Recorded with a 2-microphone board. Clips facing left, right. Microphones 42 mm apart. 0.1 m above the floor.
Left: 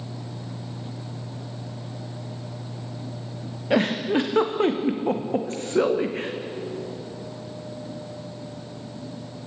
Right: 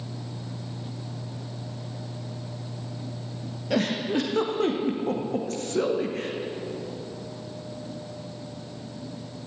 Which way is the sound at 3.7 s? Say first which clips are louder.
Left 4 dB; 30° left (ahead or behind).